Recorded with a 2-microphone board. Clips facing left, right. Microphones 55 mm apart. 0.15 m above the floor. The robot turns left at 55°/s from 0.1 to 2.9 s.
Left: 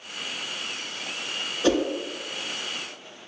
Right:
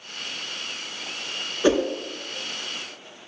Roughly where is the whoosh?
Right.